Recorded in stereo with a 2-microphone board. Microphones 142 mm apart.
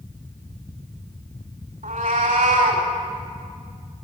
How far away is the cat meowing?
About 3 m.